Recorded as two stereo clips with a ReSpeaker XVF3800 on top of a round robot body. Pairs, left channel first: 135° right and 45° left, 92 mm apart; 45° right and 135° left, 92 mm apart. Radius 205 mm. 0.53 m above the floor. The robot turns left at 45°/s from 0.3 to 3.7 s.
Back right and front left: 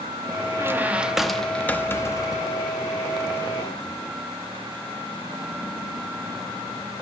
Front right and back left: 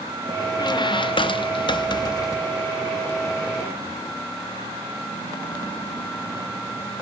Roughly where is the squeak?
Ahead.